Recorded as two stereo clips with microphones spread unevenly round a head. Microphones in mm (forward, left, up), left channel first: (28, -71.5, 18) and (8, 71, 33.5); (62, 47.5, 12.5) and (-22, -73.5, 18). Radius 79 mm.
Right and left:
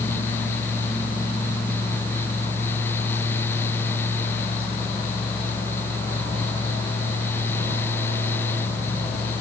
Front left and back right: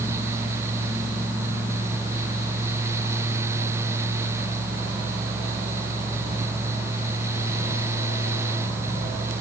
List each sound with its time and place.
Only background noise.